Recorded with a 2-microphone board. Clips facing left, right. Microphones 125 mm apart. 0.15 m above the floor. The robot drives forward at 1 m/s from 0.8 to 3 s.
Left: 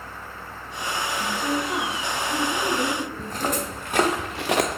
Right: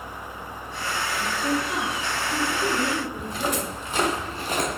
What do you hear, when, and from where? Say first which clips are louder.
1.2 s a woman speaking: right 1 dB; 40° left (ahead or behind), 1.7 m; by 4.2 s 30° left (ahead or behind), 2 m
3.2 s footsteps: even; 40° left (ahead or behind), 1.7 m; by 4.8 s 65° left (ahead or behind), 0.9 m